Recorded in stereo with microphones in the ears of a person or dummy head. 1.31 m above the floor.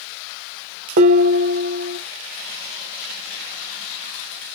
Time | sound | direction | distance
1.0 | dishes clattering | 45° right (ahead or behind) | 0.6 m